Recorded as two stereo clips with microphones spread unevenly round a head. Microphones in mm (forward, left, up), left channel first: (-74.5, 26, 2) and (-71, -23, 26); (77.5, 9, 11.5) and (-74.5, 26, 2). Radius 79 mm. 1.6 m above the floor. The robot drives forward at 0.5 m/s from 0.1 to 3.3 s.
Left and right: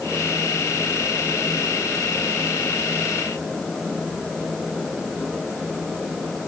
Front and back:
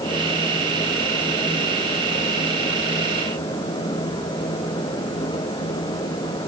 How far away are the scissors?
I don't hear scissors.